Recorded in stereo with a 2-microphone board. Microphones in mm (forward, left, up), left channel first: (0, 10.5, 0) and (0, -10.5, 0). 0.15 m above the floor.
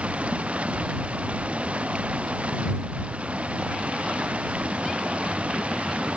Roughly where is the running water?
Right.